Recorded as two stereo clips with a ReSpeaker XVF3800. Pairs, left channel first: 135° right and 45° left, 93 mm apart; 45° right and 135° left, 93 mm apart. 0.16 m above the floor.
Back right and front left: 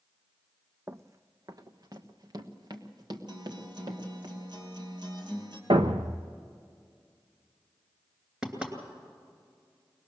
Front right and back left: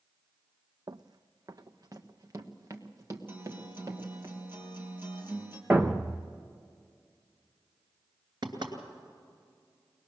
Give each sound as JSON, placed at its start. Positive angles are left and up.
{"t": 0.9, "sound": "running footsteps", "azimuth_deg": 105, "distance_m": 0.5}
{"t": 3.3, "sound": "a guitar", "azimuth_deg": 70, "distance_m": 3.0}
{"t": 5.7, "sound": "a thud", "azimuth_deg": 60, "distance_m": 1.0}
{"t": 8.4, "sound": "knocking", "azimuth_deg": 120, "distance_m": 2.5}